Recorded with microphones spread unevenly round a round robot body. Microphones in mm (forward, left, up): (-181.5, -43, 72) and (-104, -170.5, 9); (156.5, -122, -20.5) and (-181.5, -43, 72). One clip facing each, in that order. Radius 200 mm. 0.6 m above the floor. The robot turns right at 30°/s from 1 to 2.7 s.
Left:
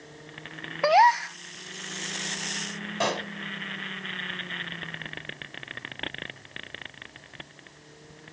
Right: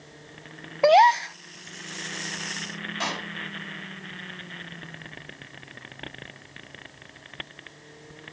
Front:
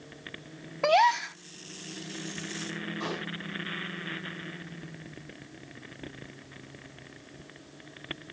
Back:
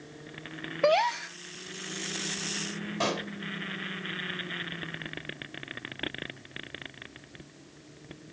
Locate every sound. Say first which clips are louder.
0.8 s a gasp: right 3 dB, back 1 dB; 80° right, 0.8 m; by 1.4 s 65° right, 0.8 m
3.0 s a pop: left 6 dB, back 6 dB; 155° left, 3.5 m